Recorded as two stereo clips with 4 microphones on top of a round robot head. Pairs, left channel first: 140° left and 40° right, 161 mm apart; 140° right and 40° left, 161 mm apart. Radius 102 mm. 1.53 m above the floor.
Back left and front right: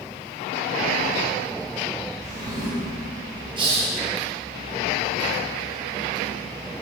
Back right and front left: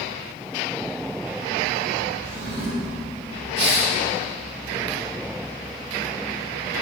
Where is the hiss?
20° left, 1.5 m.